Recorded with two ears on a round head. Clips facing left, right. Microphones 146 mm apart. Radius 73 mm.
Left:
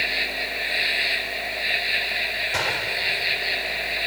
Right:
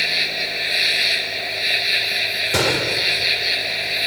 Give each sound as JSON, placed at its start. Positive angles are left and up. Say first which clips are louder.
{"t": 0.0, "sound": "an insect", "louder": "right 2 dB", "side_deg": -55}
{"t": 2.5, "sound": "a gunshot", "louder": "right 9 dB", "side_deg": -60}